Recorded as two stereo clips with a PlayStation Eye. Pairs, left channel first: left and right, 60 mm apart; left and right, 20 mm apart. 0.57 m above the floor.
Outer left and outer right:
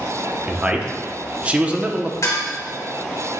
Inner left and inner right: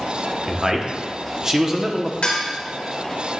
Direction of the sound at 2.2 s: 60° left (ahead or behind).